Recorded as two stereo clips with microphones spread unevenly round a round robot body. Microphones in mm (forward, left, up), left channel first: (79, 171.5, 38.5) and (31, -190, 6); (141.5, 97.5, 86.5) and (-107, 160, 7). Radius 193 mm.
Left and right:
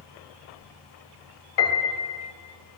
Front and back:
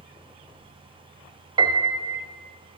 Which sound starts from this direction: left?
A piano, at 1.6 s.